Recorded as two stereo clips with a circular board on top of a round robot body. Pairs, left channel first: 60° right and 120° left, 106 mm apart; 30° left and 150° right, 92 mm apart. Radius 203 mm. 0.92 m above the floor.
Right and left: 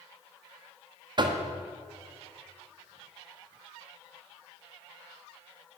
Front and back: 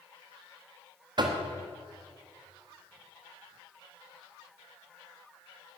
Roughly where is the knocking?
Behind.